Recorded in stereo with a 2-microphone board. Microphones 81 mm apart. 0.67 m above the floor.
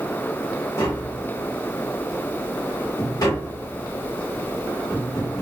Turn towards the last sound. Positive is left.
turn(degrees=50)  # may be behind; listen again after turning